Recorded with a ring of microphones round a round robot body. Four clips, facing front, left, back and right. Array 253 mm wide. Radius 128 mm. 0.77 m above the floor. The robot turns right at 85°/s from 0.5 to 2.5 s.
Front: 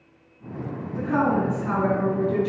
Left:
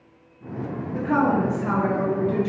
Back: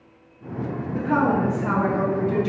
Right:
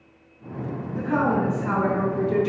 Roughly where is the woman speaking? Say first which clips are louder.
Left 2 dB, back 1 dB; left.